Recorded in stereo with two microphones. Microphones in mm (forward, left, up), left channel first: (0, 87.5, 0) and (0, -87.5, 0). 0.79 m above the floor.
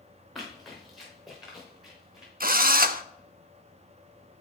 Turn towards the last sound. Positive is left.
turn(degrees=-55)  # may be behind; listen again after turning